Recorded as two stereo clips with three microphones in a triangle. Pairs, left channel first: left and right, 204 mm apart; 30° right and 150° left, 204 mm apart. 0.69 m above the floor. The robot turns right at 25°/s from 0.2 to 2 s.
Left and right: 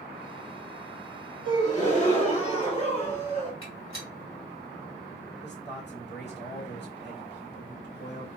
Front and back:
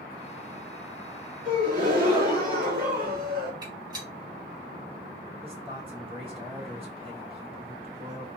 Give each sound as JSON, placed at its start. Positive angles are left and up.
{"t": 1.4, "sound": "a gasp", "azimuth_deg": 120, "distance_m": 1.6}
{"t": 3.6, "sound": "a gunshot", "azimuth_deg": 80, "distance_m": 2.5}
{"t": 5.4, "sound": "a man speaking", "azimuth_deg": 95, "distance_m": 1.9}